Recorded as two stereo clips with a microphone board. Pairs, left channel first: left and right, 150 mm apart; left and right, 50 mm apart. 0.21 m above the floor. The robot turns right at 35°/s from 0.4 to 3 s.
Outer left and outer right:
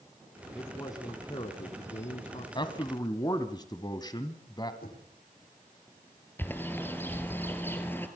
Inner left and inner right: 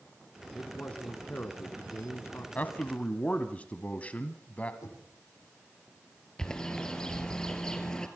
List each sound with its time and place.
0.6 s a man speaking: 20° left, 1.7 m; by 2.5 s 85° left, 1.7 m
2.5 s a man speaking: 35° left (ahead or behind), 1.3 m; by 4.7 s 30° left (ahead or behind), 1.3 m
4.8 s knocking: 80° left, 8.5 m
6.4 s a bird: 15° left (ahead or behind), 2.5 m